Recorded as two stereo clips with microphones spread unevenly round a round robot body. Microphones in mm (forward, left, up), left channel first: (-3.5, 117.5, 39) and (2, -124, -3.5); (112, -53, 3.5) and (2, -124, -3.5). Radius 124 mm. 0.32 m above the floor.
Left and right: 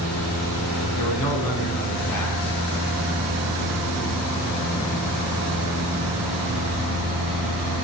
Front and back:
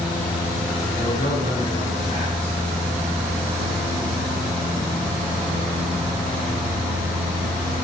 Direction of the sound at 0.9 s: 90° left.